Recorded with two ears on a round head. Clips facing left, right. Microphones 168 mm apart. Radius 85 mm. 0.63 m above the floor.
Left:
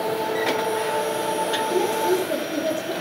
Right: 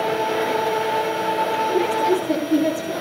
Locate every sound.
1.7 s a woman speaking: 85° right, 9.5 m